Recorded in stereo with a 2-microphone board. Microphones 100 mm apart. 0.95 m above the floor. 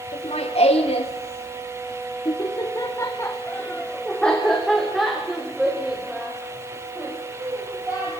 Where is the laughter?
70° left (ahead or behind), 3 m; by 8.1 s 15° right (ahead or behind), 6.5 m.